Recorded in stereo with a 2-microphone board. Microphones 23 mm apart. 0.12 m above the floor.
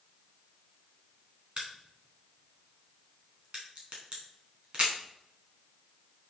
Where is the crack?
45° right (ahead or behind), 4 m.